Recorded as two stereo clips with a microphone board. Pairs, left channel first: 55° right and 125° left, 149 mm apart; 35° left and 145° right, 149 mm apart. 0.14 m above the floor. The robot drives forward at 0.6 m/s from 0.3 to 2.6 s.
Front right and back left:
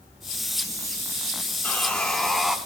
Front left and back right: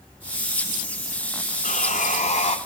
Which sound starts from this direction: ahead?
Sawing, at 1.6 s.